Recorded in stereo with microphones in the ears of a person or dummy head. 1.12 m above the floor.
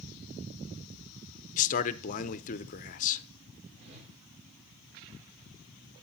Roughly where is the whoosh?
Right.